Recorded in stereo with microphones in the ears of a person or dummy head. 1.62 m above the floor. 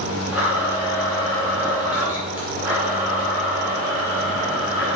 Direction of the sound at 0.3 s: 5° right (ahead or behind).